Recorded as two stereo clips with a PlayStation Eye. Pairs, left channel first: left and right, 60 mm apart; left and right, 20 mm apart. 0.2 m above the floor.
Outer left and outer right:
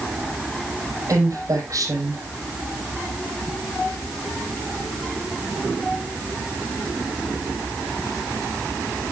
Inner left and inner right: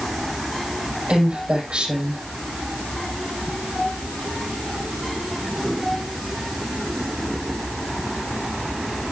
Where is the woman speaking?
65° right (ahead or behind), 7 m.